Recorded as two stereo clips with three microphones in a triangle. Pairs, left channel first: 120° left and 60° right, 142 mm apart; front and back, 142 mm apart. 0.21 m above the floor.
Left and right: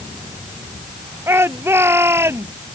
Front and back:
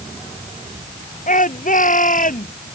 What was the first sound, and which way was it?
A shout, 10° left.